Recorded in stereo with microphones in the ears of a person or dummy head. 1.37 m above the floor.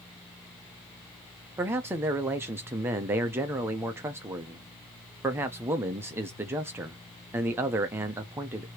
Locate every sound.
1.6 s a man speaking: 10° right (ahead or behind), 0.7 m